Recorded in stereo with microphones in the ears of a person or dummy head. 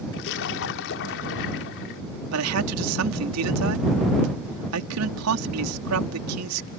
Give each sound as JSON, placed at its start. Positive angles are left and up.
{"t": 0.1, "sound": "a splash", "side_deg": 60}
{"t": 2.3, "sound": "a man speaking", "side_deg": -90}